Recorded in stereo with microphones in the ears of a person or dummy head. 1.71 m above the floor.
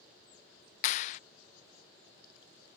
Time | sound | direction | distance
0.8 | a clap | 35° left (ahead or behind) | ?